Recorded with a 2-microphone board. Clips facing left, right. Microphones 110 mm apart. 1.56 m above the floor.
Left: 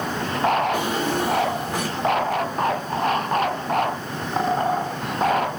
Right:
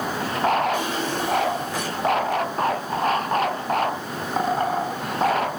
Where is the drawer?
60° left (ahead or behind), 2 m.